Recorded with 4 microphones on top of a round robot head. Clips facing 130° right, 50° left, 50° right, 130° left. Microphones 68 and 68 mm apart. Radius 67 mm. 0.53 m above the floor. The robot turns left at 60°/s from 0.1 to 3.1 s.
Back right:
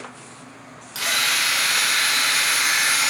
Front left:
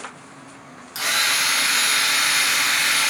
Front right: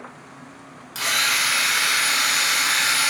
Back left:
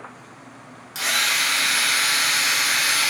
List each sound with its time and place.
0.9 s a drill: 50° left, 1.3 m; by 3.1 s 80° right, 1.3 m